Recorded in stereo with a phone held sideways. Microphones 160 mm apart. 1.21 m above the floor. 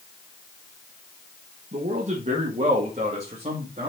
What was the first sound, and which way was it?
A man speaking, 50° right (ahead or behind).